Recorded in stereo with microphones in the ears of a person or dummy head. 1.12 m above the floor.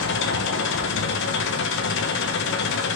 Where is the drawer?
I don't hear a drawer.